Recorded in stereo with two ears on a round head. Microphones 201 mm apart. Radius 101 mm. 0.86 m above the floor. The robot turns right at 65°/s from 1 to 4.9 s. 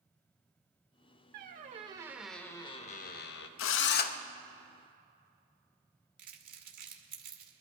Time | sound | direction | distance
1.3 | a squeak | 60° right | 0.7 m
3.6 | a drill | 105° left | 0.5 m
6.2 | crumpling | 40° right (ahead or behind) | 1.6 m